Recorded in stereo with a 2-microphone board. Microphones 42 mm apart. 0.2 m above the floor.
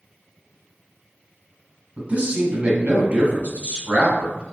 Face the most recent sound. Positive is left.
turn(degrees=-40)  # may be behind; listen again after turning